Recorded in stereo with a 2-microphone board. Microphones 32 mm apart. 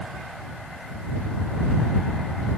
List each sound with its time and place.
Only background noise.